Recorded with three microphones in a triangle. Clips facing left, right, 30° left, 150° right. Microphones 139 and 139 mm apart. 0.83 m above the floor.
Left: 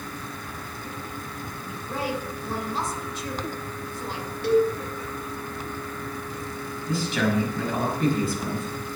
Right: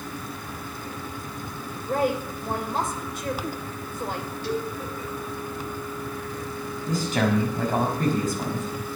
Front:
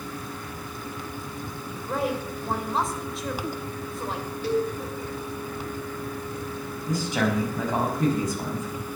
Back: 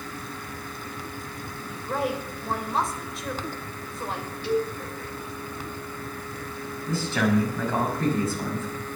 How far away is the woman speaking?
About 3 m.